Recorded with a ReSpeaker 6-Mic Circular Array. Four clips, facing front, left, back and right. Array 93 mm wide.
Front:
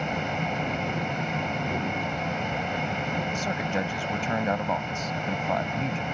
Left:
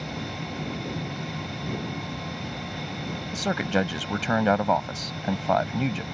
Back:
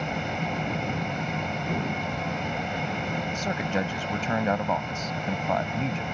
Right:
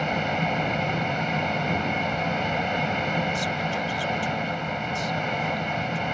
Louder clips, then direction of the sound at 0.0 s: Right 9 dB, front 1 dB; 85° right.